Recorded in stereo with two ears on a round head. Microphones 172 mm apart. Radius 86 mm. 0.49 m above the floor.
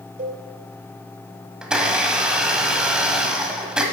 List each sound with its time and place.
0.2 s a cowbell: 40° right (ahead or behind), 2.0 m
1.6 s a blender: 5° right (ahead or behind), 1.2 m